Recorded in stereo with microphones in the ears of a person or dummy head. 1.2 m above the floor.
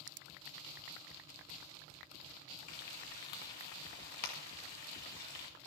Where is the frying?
40° left (ahead or behind), 1.7 m.